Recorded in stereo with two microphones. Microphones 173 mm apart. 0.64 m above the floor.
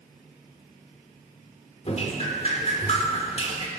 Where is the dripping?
40° left (ahead or behind), 1.7 m.